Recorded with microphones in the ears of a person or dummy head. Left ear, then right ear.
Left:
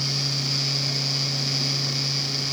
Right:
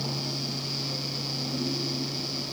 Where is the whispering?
No whispering in this recording.